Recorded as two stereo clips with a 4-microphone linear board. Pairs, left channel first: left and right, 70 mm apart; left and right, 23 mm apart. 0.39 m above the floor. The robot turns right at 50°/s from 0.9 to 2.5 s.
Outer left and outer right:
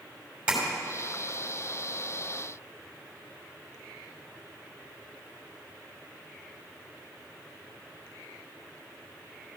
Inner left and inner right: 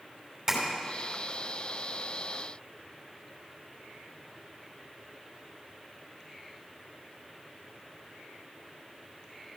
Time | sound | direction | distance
0.5 | tapping | 15° right (ahead or behind) | 2.5 m